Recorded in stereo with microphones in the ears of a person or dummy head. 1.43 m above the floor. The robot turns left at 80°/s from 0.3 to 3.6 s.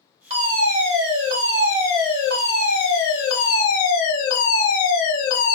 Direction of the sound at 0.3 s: 40° right.